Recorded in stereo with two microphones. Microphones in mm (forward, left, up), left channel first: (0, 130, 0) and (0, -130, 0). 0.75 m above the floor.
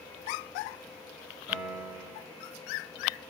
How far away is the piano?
About 8.5 m.